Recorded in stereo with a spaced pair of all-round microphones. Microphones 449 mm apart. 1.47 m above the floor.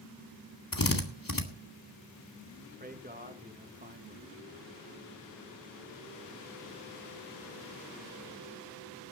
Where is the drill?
45° left (ahead or behind), 2 m.